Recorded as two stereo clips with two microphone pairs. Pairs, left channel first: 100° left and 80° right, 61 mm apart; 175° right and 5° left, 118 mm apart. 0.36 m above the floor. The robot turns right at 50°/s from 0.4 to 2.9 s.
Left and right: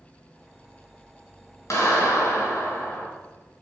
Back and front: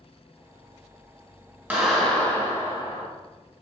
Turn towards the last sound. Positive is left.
turn(degrees=140)